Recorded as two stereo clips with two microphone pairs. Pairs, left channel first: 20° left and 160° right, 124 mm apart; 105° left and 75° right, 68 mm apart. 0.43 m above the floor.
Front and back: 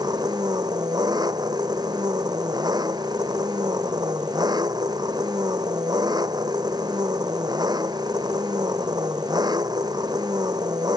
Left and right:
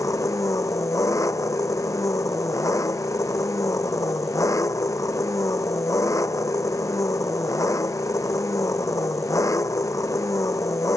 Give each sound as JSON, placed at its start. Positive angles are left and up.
{"t": 0.0, "sound": "an engine running", "azimuth_deg": 140}